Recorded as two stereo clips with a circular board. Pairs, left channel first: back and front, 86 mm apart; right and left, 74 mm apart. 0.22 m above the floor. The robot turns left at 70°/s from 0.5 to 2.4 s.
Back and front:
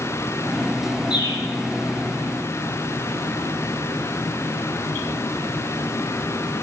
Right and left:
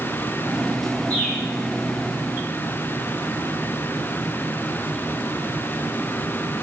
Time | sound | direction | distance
1.1 | a bird | 155° right | 3 m